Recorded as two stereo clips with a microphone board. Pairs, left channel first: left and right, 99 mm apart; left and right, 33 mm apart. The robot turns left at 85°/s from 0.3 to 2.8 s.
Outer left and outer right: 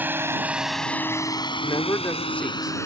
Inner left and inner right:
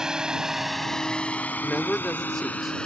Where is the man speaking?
80° left; by 2.8 s 15° right.